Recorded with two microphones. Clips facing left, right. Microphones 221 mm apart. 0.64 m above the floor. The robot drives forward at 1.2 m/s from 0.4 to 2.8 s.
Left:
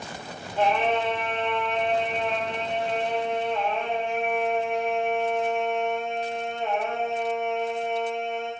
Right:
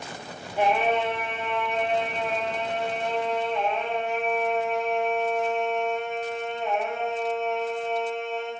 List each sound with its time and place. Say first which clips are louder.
0.6 s singing: even; 15° right (ahead or behind), 1.7 m; by 8.5 s 5° right (ahead or behind), 4 m